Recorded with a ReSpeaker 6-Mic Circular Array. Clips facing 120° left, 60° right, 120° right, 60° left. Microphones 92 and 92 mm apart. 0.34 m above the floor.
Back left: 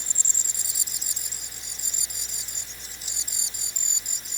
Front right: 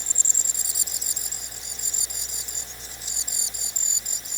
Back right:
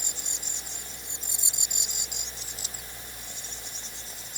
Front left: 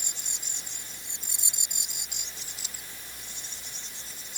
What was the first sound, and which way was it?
Only background noise.